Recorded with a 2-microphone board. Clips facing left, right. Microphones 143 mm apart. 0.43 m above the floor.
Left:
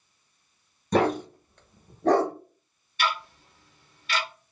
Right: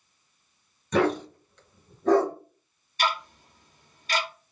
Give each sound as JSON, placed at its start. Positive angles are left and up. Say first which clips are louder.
{"t": 0.9, "sound": "a dog barking", "louder": "left 1 dB", "side_deg": 40, "distance_m": 1.3}
{"t": 3.0, "sound": "ticking", "louder": "right 1 dB", "side_deg": -40, "distance_m": 0.9}